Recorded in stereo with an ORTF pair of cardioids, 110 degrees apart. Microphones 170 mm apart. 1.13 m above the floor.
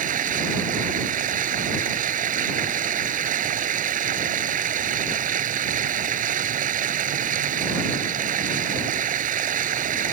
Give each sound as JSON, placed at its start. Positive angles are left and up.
{"t": 0.0, "sound": "running water", "azimuth_deg": -50}